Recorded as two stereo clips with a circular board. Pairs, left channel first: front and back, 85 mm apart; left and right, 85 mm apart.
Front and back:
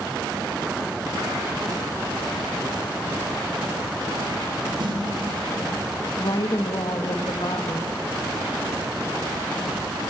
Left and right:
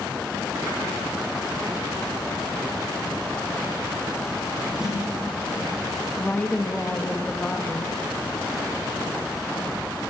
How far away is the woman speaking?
About 1.8 m.